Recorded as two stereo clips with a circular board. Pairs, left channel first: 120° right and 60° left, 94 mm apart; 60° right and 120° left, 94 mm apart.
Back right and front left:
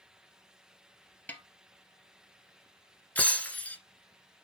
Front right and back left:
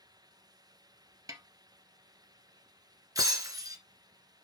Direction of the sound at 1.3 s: 170° left.